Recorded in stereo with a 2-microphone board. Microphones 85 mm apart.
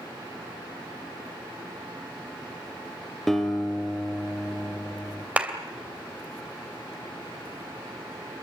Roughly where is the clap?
Centre.